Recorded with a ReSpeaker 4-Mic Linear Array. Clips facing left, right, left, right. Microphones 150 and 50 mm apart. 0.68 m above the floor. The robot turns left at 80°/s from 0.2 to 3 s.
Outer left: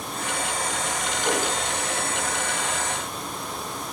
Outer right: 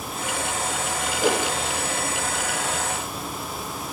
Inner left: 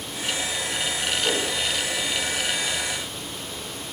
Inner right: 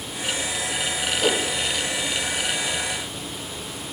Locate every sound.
1.2 s a whoosh: 75° right (ahead or behind), 5 m; by 1.4 s 80° right, 5 m